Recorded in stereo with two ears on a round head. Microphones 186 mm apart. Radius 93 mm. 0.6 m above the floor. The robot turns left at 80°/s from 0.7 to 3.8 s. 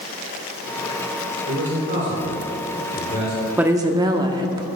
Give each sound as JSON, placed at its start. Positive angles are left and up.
{"t": 1.5, "sound": "a man speaking", "side_deg": -65, "distance_m": 2.0}
{"t": 3.6, "sound": "a woman speaking", "side_deg": -5, "distance_m": 0.7}